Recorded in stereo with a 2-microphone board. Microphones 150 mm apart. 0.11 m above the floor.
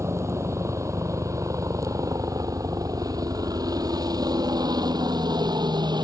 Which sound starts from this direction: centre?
A helicopter, at 0.0 s.